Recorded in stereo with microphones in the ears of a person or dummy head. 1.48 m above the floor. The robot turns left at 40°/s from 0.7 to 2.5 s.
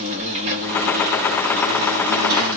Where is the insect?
40° right, 1.0 m; by 2.6 s 115° right, 1.0 m.